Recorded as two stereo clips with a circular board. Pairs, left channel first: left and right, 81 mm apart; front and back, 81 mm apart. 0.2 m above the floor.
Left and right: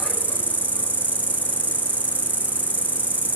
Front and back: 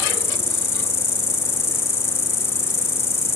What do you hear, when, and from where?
0.0 s an insect: 35° right, 0.9 m